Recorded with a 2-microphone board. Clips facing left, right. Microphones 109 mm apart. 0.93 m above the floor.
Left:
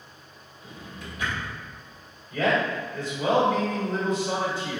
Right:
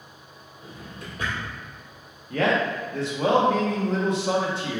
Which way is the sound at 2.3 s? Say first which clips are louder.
Right 1 dB; 75° right (ahead or behind).